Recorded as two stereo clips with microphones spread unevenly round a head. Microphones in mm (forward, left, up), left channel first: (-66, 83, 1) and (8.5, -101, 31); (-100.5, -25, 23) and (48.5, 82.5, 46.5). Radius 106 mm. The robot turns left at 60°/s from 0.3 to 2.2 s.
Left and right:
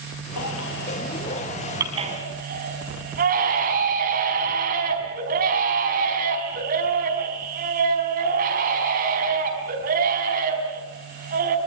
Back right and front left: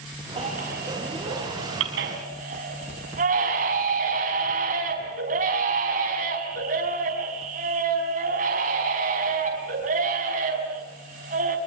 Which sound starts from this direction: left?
A baby crying, at 0.4 s.